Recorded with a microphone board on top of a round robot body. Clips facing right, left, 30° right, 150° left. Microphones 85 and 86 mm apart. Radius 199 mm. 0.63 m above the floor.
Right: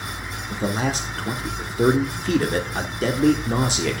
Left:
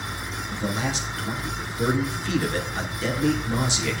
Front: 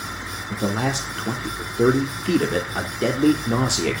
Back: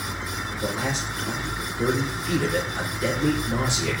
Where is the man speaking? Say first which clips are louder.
Right 4 dB, front 5 dB; 50° right, 3 m.